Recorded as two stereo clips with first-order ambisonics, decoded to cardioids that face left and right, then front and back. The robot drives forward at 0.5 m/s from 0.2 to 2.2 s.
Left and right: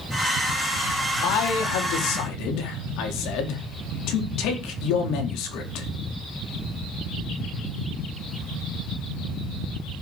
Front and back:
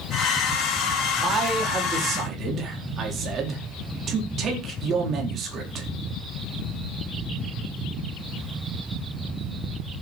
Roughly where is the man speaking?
Behind left.